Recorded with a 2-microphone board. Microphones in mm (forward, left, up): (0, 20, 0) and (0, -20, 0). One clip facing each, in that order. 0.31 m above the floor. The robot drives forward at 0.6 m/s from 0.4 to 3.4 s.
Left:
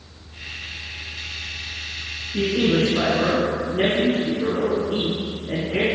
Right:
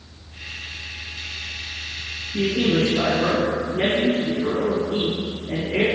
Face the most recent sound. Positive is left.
turn(degrees=75)  # may be behind; listen again after turning